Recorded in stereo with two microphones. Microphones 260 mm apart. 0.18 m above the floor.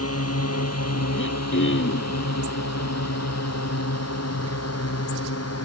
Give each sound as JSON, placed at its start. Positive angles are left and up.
{"t": 0.0, "sound": "a drone", "side_deg": 65}
{"t": 1.1, "sound": "throat clearing", "side_deg": 50}